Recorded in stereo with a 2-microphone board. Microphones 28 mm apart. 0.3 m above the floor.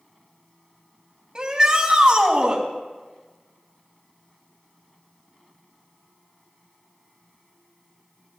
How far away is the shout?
About 2.0 m.